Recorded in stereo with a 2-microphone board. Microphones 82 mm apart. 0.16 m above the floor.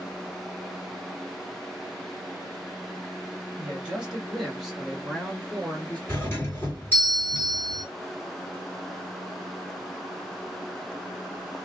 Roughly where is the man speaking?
Centre.